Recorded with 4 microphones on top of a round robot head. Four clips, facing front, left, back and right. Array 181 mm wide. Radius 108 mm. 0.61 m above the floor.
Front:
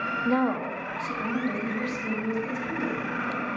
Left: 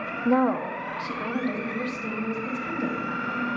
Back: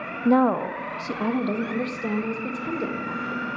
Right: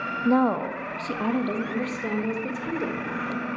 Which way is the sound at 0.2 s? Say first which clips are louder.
Right 1 dB, back 7 dB; 175° right.